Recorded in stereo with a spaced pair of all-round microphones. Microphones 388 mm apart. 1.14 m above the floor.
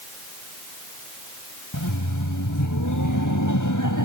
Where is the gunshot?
I don't hear a gunshot.